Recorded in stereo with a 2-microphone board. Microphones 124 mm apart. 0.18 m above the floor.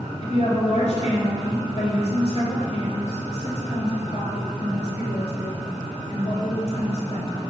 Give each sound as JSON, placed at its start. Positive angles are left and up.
{"t": 0.2, "sound": "a woman speaking", "side_deg": 60, "distance_m": 3.0}